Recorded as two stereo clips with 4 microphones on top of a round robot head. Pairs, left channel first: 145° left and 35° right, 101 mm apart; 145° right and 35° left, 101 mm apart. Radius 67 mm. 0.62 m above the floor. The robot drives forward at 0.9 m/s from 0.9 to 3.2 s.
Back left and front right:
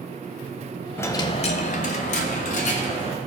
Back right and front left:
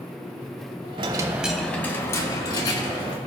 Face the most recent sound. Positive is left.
turn(degrees=165)